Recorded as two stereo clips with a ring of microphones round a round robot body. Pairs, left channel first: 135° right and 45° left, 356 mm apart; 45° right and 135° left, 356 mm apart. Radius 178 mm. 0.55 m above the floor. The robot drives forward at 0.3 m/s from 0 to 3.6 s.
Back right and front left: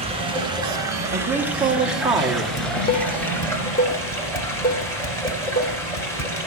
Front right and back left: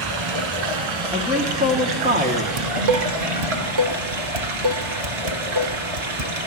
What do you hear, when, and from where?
0.0 s running water: 120° left, 1.7 m; by 6.5 s 140° left, 2.5 m
1.1 s a man speaking: 60° left, 0.9 m; by 2.5 s 125° left, 0.9 m
2.6 s dishes clattering: 145° left, 0.5 m; by 6.3 s 160° left, 0.7 m